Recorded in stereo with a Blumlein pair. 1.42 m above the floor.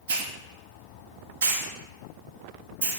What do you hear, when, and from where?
0.1 s a hiss: 60° right, 0.6 m